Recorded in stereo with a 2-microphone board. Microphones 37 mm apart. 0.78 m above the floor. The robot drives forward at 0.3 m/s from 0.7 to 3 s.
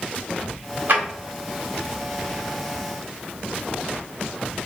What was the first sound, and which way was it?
A drawer, 60° right (ahead or behind).